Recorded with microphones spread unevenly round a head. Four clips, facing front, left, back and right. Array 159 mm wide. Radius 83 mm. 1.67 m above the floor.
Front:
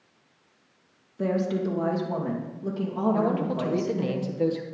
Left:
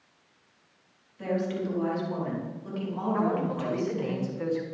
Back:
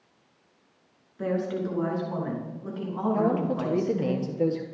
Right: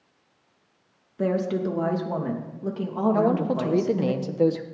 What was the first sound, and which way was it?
A woman speaking, 70° right.